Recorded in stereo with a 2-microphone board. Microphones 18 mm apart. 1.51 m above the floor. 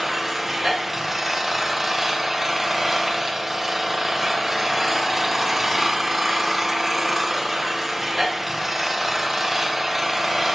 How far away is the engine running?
About 0.8 m.